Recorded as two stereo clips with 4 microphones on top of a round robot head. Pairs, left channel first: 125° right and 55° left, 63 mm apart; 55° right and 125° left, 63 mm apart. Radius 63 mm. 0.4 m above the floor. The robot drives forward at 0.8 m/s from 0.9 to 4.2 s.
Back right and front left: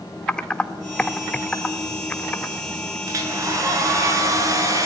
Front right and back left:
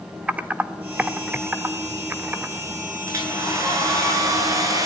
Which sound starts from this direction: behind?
Typing on a keyboard, at 0.3 s.